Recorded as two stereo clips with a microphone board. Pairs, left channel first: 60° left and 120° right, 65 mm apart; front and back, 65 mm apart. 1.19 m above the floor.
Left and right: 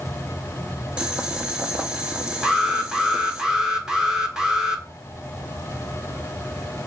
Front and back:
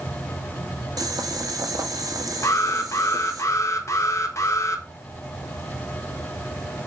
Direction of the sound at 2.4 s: 40° right.